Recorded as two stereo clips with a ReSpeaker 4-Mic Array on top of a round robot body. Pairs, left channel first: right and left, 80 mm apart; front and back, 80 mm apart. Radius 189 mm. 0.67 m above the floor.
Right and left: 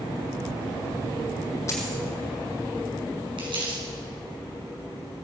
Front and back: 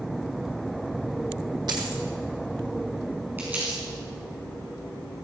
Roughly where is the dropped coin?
Behind right.